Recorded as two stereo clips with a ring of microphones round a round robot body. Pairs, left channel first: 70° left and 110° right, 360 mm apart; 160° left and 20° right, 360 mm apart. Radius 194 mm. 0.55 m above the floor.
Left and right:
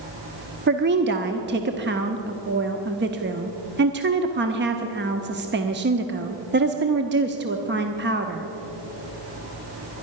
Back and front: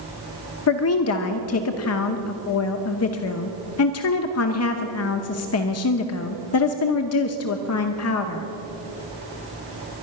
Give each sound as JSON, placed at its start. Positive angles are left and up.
{"t": 0.7, "sound": "a woman speaking", "azimuth_deg": -165, "distance_m": 0.9}